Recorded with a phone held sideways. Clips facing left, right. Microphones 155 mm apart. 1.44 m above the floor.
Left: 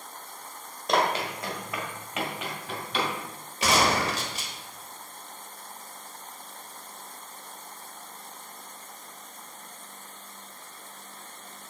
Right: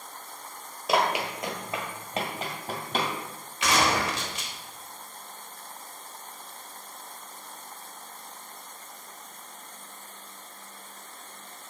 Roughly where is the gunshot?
Left.